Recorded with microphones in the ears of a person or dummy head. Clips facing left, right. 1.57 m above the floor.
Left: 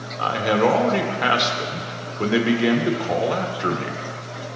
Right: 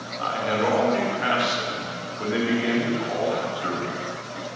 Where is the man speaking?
70° left (ahead or behind), 1.1 m.